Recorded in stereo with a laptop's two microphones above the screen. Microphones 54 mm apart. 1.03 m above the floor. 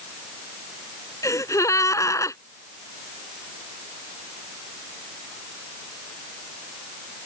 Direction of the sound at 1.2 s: 70° left (ahead or behind).